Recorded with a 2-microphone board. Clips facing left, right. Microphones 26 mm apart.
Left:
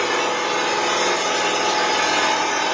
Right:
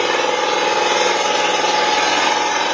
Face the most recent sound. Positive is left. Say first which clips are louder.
# right 4 dB
turn(degrees=-45)  # may be behind; listen again after turning